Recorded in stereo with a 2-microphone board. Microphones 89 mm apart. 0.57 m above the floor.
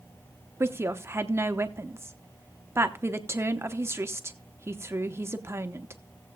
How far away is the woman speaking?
About 0.7 m.